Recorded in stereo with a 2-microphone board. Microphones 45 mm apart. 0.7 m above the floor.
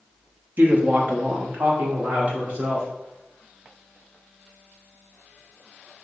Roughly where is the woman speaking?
Right.